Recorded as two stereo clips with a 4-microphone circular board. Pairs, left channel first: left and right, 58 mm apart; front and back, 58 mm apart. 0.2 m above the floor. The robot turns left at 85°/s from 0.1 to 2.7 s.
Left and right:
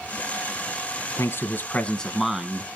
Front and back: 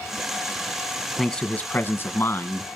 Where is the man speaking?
90° left, 1.5 m; by 2.7 s 40° right, 1.5 m.